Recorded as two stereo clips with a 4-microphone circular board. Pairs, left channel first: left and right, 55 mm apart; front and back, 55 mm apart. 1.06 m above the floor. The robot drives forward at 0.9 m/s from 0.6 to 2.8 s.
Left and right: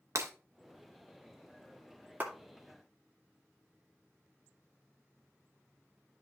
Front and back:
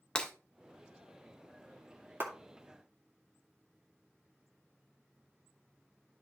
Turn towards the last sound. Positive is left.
turn(degrees=-150)